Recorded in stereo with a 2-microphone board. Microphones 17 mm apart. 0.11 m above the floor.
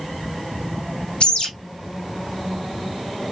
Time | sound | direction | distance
1.2 | a bird | 70° left (ahead or behind) | 3 m